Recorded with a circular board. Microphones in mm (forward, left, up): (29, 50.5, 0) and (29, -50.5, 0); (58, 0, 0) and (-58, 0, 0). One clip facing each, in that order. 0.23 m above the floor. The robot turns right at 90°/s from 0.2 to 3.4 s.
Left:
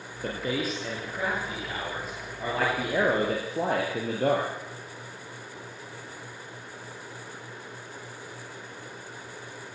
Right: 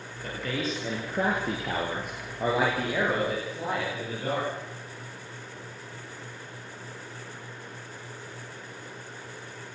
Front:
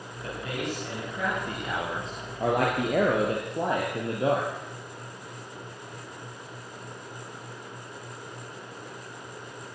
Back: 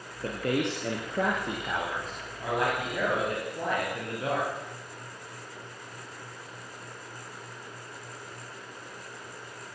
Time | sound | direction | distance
0.2 | a man speaking | 135° left | 6 m